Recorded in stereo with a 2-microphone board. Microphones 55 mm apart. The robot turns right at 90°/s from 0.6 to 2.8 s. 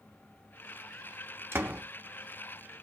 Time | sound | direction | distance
1.5 | a door slam | 45° right (ahead or behind) | 1.0 m